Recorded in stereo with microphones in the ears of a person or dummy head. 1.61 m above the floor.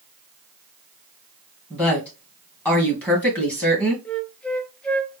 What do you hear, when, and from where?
1.7 s a woman speaking: 10° left (ahead or behind), 2 m
4.0 s a flute: 10° left (ahead or behind), 0.5 m